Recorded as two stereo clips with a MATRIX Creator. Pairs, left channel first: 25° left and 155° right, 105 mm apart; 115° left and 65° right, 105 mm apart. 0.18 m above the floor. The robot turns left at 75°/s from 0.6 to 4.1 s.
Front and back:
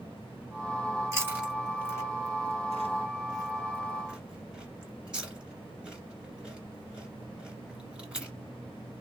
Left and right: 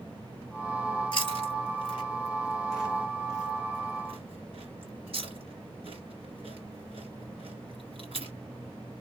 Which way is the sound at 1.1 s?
150° left.